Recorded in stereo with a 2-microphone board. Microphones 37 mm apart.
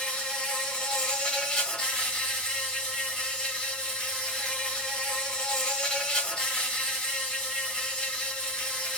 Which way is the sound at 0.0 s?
25° left (ahead or behind).